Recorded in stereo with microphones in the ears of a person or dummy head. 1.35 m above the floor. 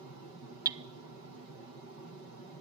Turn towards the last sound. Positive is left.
turn(degrees=-20)  # may be behind; listen again after turning